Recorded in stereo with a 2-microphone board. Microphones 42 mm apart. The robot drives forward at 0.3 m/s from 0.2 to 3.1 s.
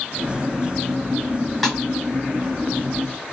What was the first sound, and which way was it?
A snare drum, 10° left (ahead or behind).